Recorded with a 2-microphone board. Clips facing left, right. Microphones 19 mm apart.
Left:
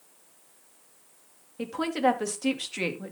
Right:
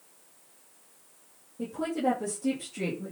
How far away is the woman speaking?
About 2.5 m.